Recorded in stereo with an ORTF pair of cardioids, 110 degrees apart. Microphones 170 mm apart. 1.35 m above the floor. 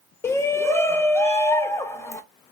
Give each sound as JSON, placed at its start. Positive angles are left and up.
{"t": 0.2, "sound": "a shout", "azimuth_deg": 15, "distance_m": 0.8}